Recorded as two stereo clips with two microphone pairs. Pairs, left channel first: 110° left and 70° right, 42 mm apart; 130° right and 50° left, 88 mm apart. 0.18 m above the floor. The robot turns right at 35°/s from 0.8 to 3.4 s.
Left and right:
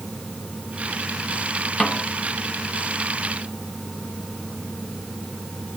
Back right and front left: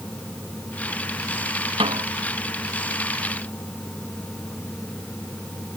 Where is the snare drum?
40° left; by 2.0 s 45° left.